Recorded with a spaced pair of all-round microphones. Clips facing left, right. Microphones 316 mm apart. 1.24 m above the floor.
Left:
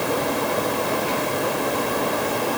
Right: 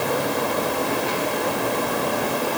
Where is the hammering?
No hammering in this recording.